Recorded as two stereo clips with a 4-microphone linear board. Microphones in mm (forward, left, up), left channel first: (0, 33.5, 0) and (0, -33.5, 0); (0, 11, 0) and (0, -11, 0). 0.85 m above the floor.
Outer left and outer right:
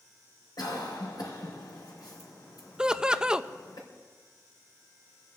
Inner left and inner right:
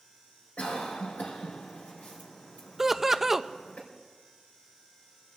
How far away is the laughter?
About 0.5 m.